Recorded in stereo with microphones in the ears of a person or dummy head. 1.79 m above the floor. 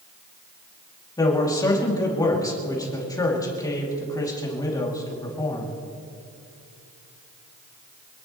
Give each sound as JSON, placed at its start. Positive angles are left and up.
{"t": 1.2, "sound": "a man speaking", "side_deg": 15, "distance_m": 2.5}